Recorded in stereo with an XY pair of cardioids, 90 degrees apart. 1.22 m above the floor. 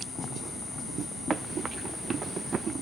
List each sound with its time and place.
1.3 s running footsteps: 45° right